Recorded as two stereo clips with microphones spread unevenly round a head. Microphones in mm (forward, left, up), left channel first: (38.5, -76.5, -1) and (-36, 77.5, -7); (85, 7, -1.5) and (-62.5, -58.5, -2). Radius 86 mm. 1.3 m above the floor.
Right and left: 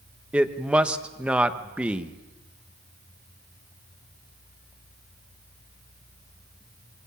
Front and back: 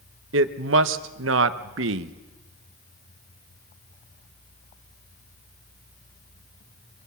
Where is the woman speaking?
160° right, 1.1 m.